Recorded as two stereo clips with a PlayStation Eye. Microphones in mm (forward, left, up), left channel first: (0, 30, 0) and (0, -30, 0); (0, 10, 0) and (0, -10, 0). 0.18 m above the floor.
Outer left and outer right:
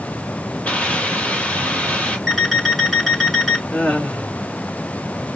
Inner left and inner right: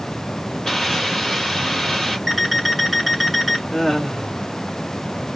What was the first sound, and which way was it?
A hiss, 20° left (ahead or behind).